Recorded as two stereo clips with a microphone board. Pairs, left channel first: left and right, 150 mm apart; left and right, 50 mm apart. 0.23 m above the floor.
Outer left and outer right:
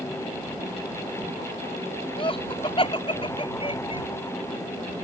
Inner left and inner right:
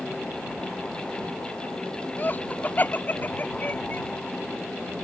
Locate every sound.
2.2 s laughter: 35° left (ahead or behind)